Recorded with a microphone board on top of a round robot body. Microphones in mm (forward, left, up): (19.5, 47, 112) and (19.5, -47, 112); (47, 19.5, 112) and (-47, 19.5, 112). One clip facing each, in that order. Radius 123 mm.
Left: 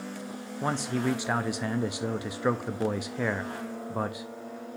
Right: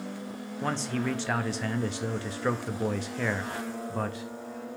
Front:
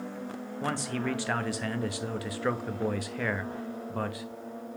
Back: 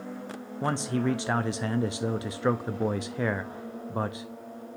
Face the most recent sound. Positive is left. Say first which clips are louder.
# left 2 dB, back 4 dB
turn(degrees=150)